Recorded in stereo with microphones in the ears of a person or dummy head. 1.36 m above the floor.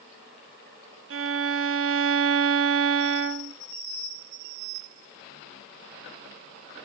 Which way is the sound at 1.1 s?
60° right (ahead or behind).